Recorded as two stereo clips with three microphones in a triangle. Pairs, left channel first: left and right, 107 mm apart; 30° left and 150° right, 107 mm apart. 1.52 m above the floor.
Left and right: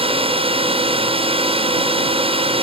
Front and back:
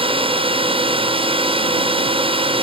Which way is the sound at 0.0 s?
120° right.